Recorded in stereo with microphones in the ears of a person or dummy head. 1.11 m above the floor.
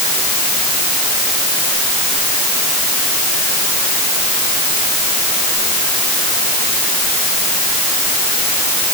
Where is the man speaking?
No man speaking in this recording.